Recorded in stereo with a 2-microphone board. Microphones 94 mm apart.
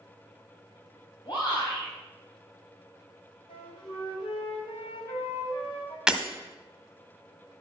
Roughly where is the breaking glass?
Centre.